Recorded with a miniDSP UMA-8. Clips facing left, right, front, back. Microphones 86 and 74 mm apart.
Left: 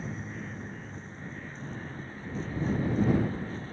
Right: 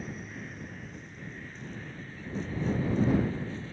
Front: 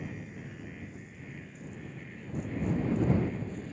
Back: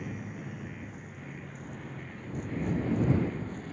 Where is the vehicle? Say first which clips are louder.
Left 2 dB, back 2 dB; 150° left; by 3.7 s 140° left.